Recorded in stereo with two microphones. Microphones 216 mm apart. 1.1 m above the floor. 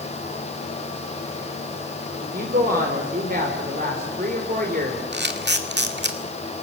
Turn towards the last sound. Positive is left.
turn(degrees=-55)  # may be behind; listen again after turning